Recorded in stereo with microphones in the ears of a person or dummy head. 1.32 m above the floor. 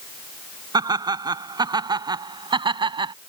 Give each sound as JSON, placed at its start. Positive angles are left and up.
{"t": 0.7, "sound": "laughter", "side_deg": -20}